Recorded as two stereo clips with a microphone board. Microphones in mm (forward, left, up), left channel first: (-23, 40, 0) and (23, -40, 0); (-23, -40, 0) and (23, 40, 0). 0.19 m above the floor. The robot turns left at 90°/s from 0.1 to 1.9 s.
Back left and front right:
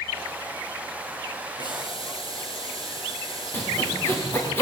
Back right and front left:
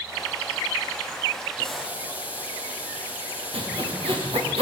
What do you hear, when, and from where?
1.6 s boiling: 160° left, 7 m; by 4.5 s 135° left, 7 m
3.5 s sawing: 55° left, 8 m